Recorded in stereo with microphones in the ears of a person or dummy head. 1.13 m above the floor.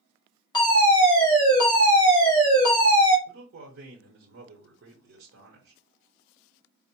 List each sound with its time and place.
0.5 s a fire alarm: 20° left (ahead or behind), 1.8 m
3.3 s a man speaking: 70° right (ahead or behind), 1.1 m